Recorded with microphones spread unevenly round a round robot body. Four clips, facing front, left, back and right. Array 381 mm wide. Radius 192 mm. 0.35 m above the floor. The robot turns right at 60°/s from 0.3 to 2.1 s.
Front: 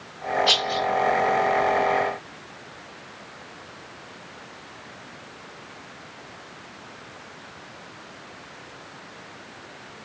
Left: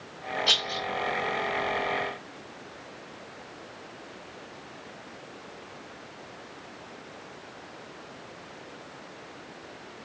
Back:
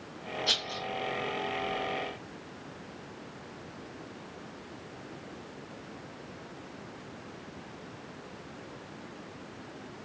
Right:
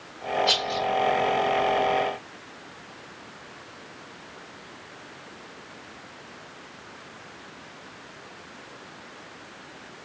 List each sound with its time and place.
0.5 s a rattle: 90° left, 1.7 m; by 0.9 s 115° left, 1.7 m